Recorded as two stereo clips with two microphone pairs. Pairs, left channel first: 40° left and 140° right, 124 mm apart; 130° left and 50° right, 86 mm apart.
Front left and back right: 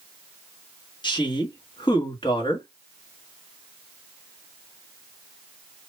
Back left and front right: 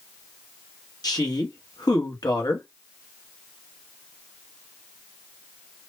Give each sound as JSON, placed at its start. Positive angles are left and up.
{"t": 1.0, "sound": "a woman speaking", "azimuth_deg": 90, "distance_m": 1.4}